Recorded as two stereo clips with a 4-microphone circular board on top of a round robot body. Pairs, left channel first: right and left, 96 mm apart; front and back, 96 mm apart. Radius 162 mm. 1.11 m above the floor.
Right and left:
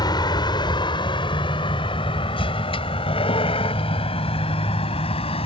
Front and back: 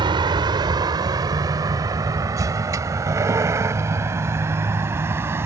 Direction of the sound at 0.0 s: 140° right.